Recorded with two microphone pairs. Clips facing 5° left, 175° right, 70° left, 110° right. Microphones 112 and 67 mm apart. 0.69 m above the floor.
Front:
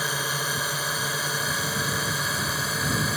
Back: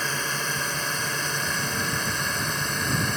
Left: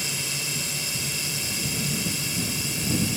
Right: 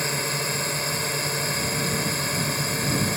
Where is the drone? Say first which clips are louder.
Even, right 6 dB; 75° right; by 3.2 s 80° right.